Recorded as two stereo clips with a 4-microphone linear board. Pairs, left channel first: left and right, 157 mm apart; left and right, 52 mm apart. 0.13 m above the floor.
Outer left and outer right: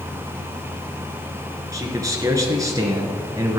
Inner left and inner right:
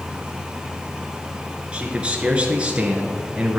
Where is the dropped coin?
I don't hear a dropped coin.